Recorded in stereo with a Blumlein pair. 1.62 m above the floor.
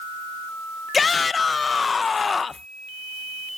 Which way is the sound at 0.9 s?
15° left.